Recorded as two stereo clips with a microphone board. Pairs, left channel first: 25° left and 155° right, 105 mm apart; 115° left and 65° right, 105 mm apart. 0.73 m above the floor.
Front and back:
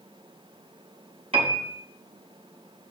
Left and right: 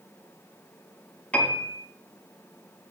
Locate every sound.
1.3 s a piano: 170° right, 2.5 m